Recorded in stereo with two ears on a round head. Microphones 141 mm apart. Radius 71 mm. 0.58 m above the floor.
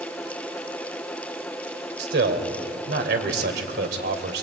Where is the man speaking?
70° right (ahead or behind), 2.5 m.